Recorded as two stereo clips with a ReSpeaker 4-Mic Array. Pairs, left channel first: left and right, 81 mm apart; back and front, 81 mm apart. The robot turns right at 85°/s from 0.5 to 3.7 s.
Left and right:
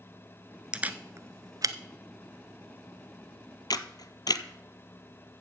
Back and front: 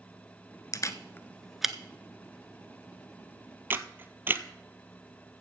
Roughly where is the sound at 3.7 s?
Ahead left.